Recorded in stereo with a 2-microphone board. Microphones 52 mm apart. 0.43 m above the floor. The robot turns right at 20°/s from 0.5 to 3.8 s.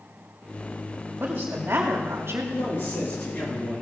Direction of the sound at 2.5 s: 55° left (ahead or behind).